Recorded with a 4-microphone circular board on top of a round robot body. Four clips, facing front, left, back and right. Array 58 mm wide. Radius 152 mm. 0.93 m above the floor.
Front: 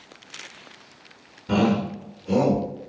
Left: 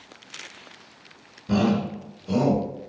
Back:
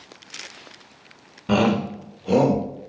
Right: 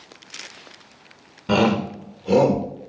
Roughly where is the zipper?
I don't hear a zipper.